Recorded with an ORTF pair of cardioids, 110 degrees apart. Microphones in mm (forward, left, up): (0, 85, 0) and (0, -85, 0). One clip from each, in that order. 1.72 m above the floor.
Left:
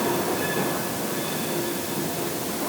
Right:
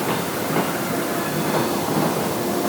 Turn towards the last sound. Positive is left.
No sound to turn to.